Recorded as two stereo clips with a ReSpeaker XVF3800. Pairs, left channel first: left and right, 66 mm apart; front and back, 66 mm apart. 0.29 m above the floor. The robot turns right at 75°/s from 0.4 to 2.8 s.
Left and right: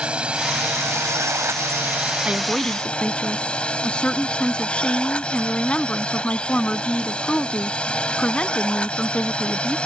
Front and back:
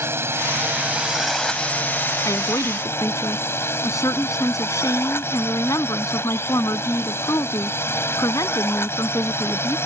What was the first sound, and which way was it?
A drone, 155° right.